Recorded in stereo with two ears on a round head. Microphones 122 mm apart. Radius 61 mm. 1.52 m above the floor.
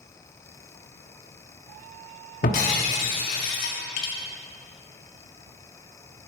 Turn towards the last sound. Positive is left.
turn(degrees=65)  # may be behind; listen again after turning